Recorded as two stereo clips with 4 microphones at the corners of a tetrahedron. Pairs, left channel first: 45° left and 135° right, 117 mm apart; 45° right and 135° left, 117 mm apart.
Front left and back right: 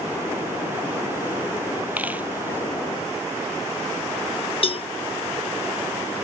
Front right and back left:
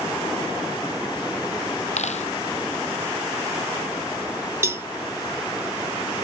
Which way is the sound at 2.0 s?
60° right.